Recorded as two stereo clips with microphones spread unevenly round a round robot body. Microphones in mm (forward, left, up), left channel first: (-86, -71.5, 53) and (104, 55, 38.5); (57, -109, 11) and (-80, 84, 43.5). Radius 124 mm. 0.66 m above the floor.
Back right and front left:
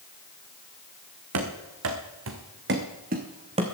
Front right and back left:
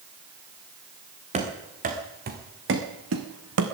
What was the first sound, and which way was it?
Running footsteps, 60° left.